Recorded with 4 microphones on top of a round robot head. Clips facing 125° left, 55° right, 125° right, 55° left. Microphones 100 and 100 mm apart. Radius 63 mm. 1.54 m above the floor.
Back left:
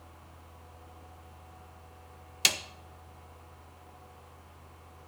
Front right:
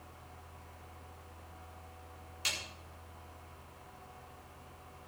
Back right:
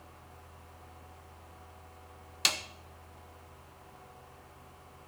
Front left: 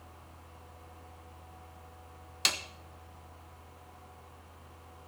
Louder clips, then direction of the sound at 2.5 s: Back left 8 dB, back right 1 dB; 145° left.